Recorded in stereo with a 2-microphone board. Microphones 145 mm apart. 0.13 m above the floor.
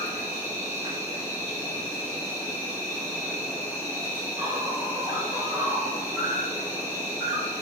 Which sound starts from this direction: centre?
An insect, at 0.0 s.